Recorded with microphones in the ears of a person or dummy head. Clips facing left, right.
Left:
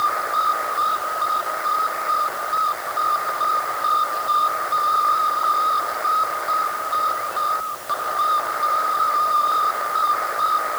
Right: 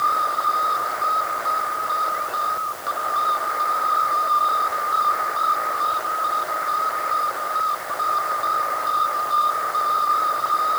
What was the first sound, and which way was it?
Only background noise.